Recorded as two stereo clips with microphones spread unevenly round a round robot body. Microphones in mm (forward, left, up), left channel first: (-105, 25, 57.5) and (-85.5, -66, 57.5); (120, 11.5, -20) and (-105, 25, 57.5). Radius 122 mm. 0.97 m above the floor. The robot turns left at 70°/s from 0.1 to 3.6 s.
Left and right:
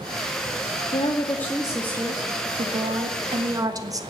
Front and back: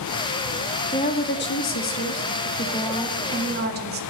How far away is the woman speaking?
About 2 m.